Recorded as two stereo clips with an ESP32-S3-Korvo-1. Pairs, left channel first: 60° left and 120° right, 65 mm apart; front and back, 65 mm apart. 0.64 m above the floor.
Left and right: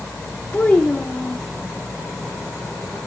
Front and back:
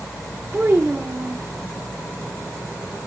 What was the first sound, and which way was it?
A child speaking, 125° left.